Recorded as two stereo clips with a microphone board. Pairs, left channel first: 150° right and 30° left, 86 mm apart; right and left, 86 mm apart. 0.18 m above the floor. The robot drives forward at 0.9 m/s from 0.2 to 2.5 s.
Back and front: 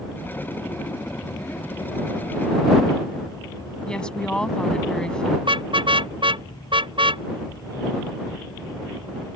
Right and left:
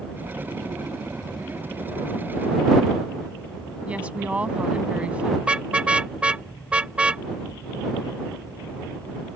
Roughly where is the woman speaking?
Behind left.